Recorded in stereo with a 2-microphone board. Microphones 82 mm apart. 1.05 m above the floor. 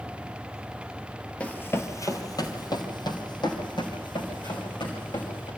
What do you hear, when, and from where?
1.4 s running footsteps: 15° left (ahead or behind), 1.1 m; by 5.5 s 70° left (ahead or behind), 4.5 m